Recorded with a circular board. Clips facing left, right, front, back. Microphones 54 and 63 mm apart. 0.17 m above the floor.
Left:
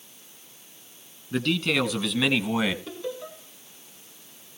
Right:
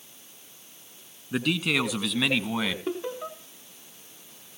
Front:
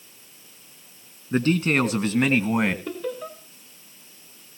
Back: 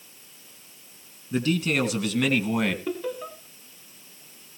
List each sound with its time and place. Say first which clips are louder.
1.3 s a man speaking: left 1 dB, front 3 dB; 20° right, 1.9 m; by 2.8 s 20° left, 1.5 m
2.9 s laughter: right 3 dB, even; 100° right, 1.2 m